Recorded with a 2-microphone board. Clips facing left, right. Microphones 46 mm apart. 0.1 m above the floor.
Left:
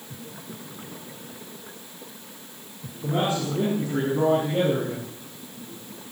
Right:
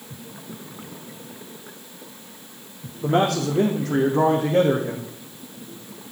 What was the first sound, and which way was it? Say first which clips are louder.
A man speaking: right 5 dB; 65° right (ahead or behind).